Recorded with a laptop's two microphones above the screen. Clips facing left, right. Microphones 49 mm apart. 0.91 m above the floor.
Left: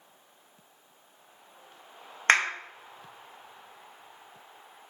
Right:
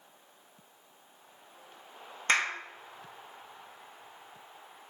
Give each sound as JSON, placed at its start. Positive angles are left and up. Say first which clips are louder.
{"t": 2.3, "sound": "a clap", "louder": "left 5 dB", "side_deg": 55, "distance_m": 0.7}